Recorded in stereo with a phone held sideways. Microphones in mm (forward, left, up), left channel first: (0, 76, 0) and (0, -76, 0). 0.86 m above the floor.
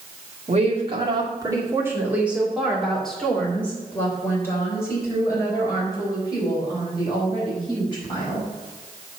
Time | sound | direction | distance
0.5 | a woman speaking | 45° right (ahead or behind) | 2.5 m